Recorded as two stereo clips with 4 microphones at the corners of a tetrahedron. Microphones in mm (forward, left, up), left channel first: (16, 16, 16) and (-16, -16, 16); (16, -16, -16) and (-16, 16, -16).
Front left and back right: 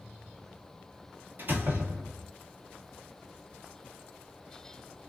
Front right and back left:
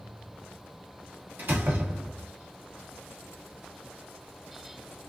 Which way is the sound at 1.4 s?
Straight behind.